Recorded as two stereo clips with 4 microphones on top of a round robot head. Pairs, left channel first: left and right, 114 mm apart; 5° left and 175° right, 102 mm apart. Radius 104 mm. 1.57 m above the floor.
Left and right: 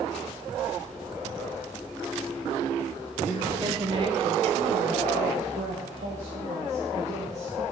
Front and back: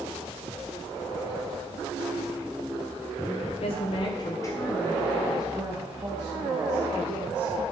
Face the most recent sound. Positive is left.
turn(degrees=-120)